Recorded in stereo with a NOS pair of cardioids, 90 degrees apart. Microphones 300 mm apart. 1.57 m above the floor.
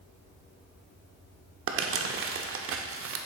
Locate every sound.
1.7 s crumpling: 50° right, 0.6 m